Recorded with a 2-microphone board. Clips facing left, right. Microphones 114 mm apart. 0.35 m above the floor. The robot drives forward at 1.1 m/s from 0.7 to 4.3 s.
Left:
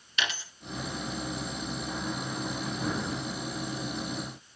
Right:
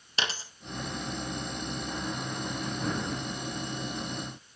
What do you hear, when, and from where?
0.2 s a dropped coin: 30° right (ahead or behind), 1.8 m